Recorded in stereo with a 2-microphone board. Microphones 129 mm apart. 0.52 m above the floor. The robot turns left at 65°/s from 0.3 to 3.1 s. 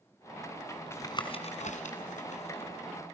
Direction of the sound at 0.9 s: 20° left (ahead or behind).